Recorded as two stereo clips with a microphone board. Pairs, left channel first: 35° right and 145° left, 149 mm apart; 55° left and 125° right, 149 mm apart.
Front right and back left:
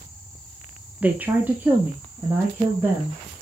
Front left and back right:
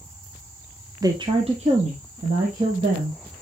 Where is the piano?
No piano in this recording.